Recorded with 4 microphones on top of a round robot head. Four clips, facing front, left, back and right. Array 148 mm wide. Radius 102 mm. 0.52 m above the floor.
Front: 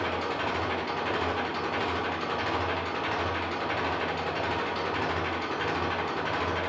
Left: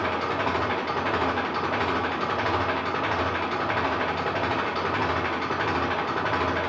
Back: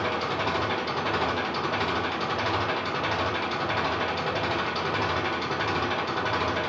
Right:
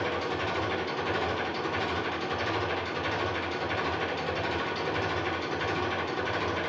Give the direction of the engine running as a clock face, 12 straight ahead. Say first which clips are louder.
Left 4 dB, back 2 dB; 8 o'clock.